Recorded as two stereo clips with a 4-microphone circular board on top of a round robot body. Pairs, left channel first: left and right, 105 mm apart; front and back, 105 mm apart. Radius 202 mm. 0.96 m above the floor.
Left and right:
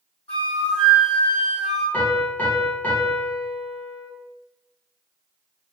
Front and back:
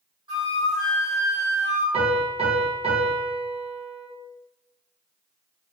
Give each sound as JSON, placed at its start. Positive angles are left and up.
{"t": 0.3, "sound": "a flute", "azimuth_deg": 140, "distance_m": 0.8}
{"t": 1.9, "sound": "a piano", "azimuth_deg": 165, "distance_m": 0.9}